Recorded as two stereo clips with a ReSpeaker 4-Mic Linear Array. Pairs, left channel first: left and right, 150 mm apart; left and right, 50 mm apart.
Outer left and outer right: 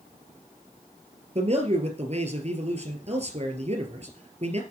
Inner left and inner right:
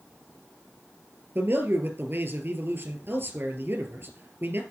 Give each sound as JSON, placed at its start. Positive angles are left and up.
{"t": 1.4, "sound": "a man speaking", "side_deg": -50, "distance_m": 2.5}